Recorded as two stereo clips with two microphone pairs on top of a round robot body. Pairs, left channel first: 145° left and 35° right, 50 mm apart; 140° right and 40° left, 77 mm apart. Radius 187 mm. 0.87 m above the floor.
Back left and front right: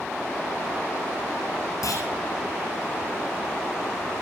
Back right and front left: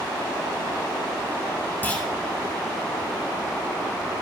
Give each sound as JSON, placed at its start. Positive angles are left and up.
{"t": 1.8, "sound": "a clunk", "azimuth_deg": 145, "distance_m": 7.5}